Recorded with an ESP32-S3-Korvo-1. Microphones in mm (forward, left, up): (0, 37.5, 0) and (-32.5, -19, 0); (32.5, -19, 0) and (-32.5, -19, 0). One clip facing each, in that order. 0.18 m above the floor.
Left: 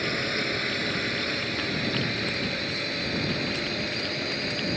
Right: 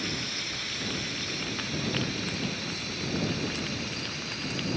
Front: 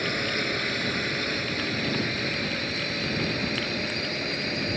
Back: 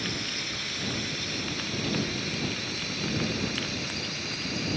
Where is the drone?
30° left; by 4.8 s 40° left.